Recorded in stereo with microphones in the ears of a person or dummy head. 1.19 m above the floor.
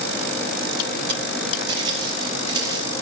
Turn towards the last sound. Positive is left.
turn(degrees=-25)  # may be behind; listen again after turning